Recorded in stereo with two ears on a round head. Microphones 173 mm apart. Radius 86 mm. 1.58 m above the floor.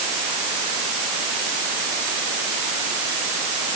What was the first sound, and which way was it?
Only background noise.